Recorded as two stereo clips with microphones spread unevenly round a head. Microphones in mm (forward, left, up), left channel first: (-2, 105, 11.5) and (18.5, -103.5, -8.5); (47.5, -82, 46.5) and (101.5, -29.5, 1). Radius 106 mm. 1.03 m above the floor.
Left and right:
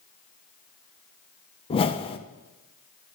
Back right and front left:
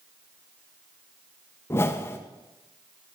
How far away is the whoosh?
About 0.5 m.